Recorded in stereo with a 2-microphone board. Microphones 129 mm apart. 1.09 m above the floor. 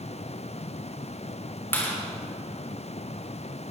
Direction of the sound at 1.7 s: 20° left (ahead or behind).